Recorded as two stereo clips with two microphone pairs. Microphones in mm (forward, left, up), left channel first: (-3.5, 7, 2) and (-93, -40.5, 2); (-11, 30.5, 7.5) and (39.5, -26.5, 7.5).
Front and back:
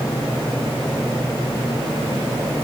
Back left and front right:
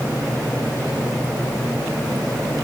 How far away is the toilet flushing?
I don't hear a toilet flushing.